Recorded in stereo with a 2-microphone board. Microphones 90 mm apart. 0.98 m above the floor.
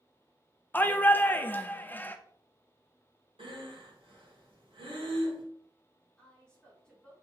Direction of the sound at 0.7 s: 20° left (ahead or behind).